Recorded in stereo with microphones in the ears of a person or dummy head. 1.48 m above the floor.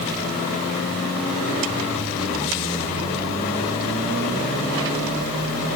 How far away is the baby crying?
I don't hear a baby crying.